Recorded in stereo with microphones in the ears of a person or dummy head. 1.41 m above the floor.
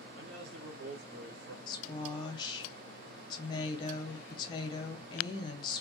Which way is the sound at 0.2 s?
80° right.